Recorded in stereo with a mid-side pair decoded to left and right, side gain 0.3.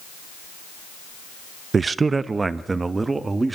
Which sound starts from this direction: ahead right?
A man speaking, at 1.7 s.